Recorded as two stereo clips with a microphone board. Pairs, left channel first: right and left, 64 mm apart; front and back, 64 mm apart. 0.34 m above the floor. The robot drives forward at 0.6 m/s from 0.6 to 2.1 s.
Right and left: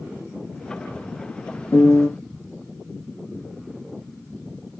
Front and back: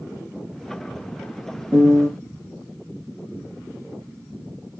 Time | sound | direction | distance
1.7 | a piano | 140° right | 1.9 m